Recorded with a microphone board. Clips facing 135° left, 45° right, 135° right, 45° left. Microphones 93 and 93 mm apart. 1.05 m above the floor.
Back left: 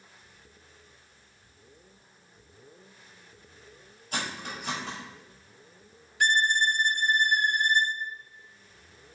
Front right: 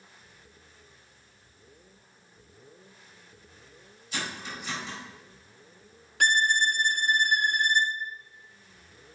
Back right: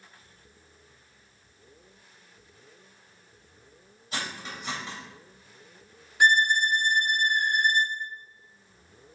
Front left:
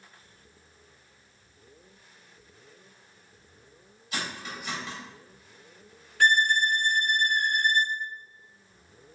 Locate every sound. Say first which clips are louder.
4.1 s cutlery clinking: back left 1 dB, even; 170° left, 3.5 m
6.2 s a violin: even, back right 1 dB; 60° right, 0.9 m